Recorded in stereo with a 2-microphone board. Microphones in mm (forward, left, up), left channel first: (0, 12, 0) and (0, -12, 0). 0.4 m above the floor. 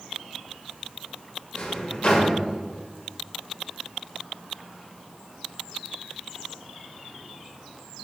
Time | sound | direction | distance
1.5 | a drawer | 50° left (ahead or behind) | 0.8 m